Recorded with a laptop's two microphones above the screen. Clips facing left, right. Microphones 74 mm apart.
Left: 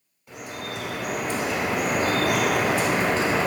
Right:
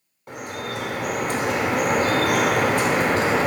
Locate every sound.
0.3 s dripping: 55° right (ahead or behind), 1.0 m